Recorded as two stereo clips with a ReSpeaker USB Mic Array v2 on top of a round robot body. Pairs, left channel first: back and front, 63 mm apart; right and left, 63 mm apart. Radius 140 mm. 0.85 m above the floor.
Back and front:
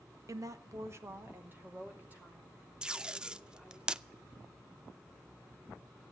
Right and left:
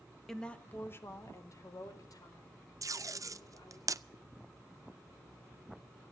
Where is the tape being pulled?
75° left, 0.6 m.